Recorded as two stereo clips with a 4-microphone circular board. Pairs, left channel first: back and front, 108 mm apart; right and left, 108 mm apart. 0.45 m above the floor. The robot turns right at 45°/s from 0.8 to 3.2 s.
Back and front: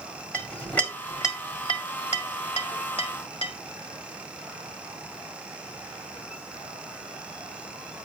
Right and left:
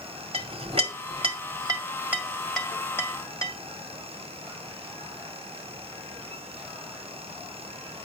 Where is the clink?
105° left, 1.7 m; by 3.5 s 150° right, 1.7 m.